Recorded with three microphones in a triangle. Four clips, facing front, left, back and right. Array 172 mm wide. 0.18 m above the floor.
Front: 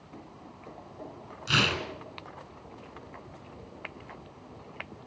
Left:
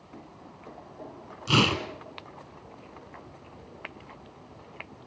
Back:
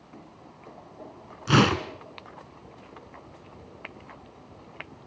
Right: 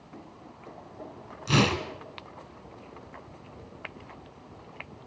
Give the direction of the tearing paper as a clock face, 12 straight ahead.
6 o'clock.